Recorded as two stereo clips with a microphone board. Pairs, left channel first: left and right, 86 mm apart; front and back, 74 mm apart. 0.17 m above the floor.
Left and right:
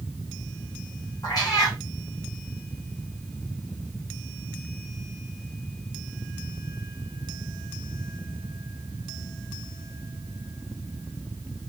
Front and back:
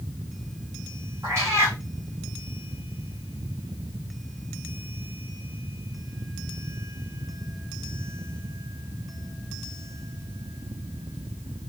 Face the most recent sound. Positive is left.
turn(degrees=130)